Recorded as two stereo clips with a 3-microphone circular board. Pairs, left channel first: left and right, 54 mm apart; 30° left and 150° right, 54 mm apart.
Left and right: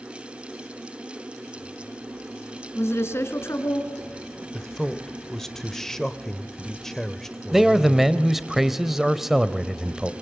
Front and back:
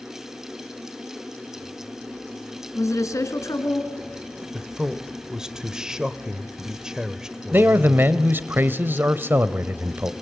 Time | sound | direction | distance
2.8 | a woman speaking | 50° left | 3 m
4.5 | a man speaking | 160° left | 1.2 m
7.5 | a man speaking | 175° right | 1.1 m